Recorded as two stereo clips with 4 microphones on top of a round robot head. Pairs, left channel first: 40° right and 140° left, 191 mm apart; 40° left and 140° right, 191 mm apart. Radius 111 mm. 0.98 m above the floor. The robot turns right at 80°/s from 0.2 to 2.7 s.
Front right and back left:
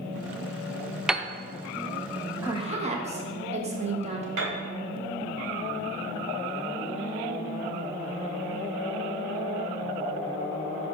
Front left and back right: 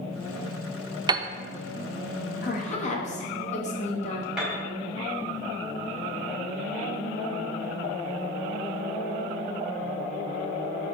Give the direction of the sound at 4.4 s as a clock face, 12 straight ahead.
8 o'clock.